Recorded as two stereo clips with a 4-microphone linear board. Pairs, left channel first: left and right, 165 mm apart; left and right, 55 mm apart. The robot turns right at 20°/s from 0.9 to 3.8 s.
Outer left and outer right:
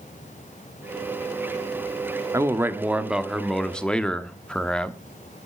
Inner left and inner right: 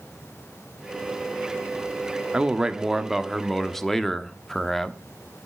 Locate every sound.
2.3 s a man speaking: 15° right (ahead or behind), 1.0 m; by 5.0 s 5° left (ahead or behind), 1.0 m